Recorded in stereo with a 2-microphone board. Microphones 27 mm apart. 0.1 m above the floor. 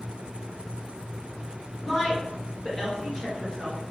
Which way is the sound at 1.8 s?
20° left (ahead or behind).